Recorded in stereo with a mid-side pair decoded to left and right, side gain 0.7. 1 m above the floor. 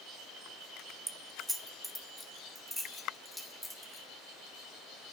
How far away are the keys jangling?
About 0.6 m.